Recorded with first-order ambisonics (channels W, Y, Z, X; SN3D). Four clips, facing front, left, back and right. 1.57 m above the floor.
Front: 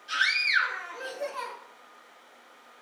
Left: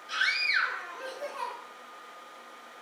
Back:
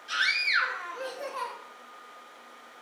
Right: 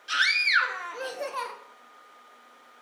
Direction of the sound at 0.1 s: 95° right.